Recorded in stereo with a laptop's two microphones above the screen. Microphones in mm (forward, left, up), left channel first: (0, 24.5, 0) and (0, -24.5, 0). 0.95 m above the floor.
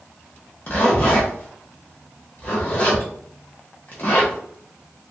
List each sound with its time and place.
0.7 s a zipper: 40° left (ahead or behind), 0.9 m